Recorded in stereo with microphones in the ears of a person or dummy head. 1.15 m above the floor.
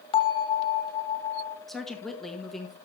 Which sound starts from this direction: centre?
A woman speaking, at 1.7 s.